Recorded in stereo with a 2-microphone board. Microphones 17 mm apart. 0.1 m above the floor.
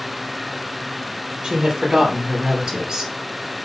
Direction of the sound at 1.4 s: 55° right (ahead or behind).